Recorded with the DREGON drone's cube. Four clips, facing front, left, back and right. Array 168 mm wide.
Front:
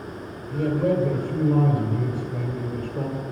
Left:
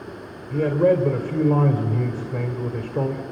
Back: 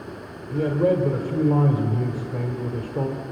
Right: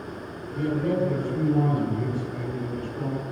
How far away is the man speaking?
About 2.5 m.